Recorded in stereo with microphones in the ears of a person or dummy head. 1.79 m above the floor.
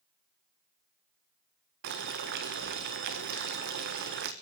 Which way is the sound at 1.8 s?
50° right (ahead or behind).